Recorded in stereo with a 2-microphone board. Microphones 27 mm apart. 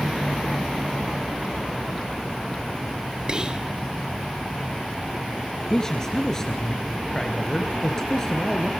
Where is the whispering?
30° right (ahead or behind), 1.6 m.